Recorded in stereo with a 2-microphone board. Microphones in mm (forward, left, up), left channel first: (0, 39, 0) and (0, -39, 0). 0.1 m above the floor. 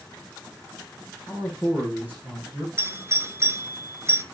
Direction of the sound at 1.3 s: 20° right (ahead or behind).